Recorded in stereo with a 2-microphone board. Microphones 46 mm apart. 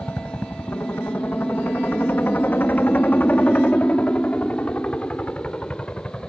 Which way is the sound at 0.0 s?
60° left (ahead or behind).